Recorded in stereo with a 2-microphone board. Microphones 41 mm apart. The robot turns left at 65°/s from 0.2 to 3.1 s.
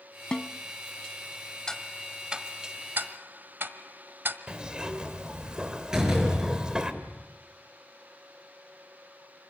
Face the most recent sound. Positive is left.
turn(degrees=-15)  # may be behind; listen again after turning